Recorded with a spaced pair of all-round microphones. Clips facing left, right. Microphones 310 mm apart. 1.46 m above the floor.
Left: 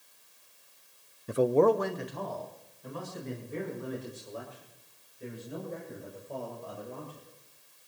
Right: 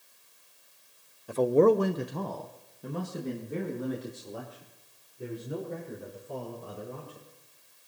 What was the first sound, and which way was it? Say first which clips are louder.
A man speaking: right 2 dB; 25° left (ahead or behind).